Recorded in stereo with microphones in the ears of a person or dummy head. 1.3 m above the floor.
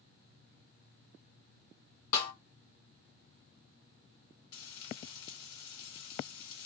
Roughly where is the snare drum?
Left.